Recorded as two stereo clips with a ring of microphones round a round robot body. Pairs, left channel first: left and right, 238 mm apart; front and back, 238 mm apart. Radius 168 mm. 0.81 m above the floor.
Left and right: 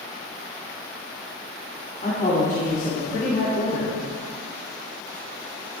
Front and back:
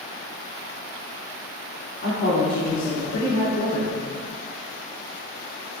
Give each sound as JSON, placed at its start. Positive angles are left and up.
{"t": 2.0, "sound": "a woman speaking", "azimuth_deg": 35, "distance_m": 2.5}